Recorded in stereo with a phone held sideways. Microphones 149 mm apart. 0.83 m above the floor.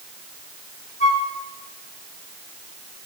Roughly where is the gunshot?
No gunshot in this recording.